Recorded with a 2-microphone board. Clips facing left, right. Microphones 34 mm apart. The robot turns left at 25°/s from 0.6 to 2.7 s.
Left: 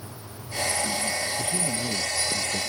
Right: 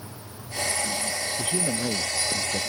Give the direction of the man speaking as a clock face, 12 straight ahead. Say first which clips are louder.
Right 1 dB; 3 o'clock.